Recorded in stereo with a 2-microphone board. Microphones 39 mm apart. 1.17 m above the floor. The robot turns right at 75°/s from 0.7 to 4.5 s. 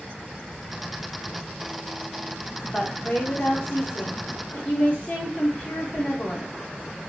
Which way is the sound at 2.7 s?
5° left.